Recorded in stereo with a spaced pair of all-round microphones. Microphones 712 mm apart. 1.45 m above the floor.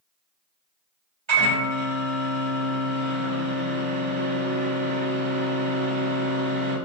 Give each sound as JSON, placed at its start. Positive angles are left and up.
{"t": 1.3, "sound": "a microwave", "side_deg": -40, "distance_m": 1.3}